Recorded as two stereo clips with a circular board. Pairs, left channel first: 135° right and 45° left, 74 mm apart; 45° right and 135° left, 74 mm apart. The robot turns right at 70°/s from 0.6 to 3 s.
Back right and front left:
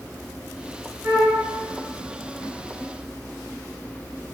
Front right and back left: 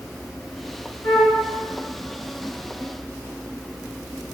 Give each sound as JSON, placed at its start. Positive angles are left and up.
{"t": 1.0, "sound": "a flute", "azimuth_deg": -25, "distance_m": 1.5}